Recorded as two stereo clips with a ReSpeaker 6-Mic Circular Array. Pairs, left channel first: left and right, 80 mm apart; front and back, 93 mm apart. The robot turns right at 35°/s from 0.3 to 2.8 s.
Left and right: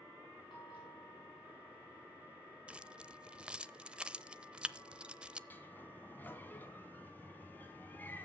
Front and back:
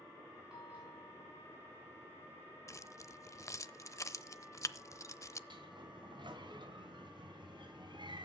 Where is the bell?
95° left, 7 m; by 1.9 s 140° left, 7 m.